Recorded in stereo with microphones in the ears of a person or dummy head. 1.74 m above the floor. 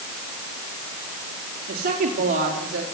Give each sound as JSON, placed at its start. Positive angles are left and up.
{"t": 1.7, "sound": "a woman speaking", "side_deg": -55, "distance_m": 3.0}